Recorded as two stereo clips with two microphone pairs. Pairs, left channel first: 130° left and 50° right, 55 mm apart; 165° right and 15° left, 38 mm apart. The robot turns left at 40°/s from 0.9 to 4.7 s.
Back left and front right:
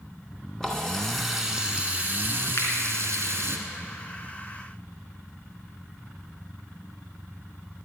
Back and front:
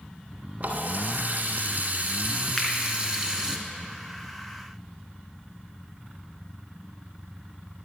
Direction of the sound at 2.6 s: 110° left.